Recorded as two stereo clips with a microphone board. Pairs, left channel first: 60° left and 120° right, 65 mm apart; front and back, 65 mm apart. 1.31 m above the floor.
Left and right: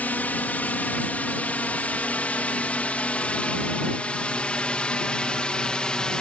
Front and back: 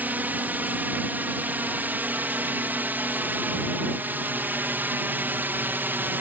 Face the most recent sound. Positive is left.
turn(degrees=130)